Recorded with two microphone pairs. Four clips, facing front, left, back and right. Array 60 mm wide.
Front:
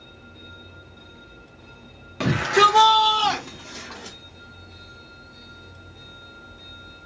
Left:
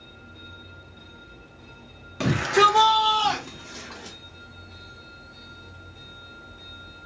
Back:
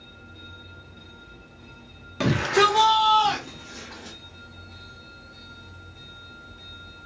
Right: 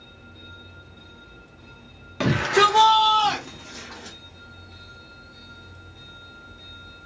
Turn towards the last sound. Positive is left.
turn(degrees=0)